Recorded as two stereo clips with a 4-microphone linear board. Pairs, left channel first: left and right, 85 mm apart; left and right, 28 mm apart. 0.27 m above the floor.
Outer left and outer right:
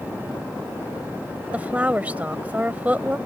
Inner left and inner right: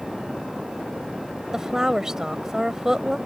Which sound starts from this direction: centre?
A woman speaking, at 1.5 s.